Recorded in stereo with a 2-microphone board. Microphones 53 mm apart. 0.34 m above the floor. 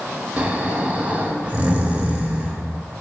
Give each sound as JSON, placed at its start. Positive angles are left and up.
{"t": 0.4, "sound": "snoring", "side_deg": -25, "distance_m": 0.5}